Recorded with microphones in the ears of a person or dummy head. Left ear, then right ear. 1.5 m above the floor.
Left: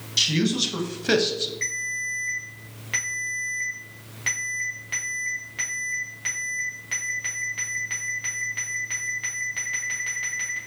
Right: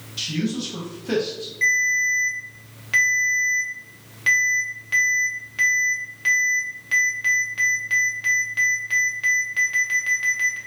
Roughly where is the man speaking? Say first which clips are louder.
Left 5 dB; left.